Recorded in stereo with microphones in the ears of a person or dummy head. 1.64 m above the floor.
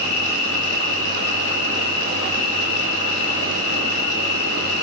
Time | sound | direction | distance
0.0 | an insect | 60° left (ahead or behind) | 6.5 m